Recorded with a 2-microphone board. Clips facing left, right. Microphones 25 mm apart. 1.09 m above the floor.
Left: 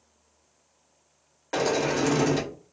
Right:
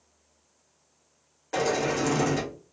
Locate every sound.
1.5 s a sliding door: 25° left (ahead or behind), 0.7 m